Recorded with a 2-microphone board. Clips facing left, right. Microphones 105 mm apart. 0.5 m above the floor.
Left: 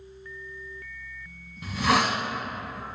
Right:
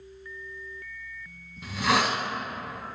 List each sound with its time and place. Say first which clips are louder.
1.6 s a hiss: left 1 dB; 5° left (ahead or behind), 1.1 m